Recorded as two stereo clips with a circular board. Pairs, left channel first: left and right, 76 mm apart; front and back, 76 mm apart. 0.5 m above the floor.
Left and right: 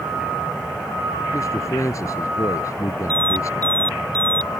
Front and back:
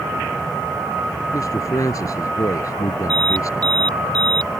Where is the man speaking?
45° left.